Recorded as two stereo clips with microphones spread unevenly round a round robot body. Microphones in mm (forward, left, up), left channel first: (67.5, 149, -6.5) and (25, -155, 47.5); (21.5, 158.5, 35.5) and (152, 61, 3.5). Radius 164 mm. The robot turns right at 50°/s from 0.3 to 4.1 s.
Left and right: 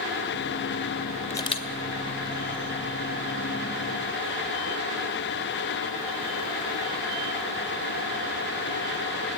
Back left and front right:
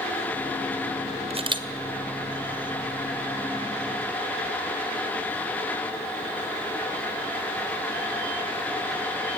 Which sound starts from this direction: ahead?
A camera shutter, at 1.3 s.